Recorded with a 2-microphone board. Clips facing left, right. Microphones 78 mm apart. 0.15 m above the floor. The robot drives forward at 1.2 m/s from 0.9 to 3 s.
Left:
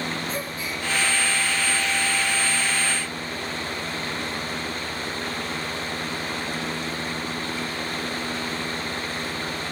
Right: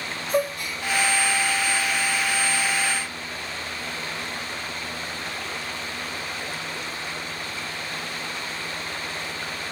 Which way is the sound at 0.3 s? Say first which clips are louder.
Right 5 dB; 65° right (ahead or behind).